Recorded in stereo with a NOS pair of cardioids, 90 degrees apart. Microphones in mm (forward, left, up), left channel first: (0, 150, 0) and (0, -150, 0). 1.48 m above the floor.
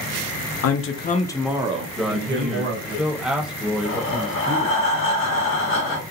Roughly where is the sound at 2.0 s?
Ahead.